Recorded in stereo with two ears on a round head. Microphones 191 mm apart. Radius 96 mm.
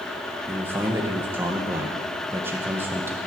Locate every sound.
0.5 s a man speaking: 10° right (ahead or behind), 1.2 m